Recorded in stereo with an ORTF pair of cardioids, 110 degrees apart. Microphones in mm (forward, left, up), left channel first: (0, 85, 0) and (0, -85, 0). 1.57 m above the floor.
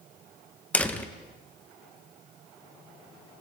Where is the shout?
No shout in this recording.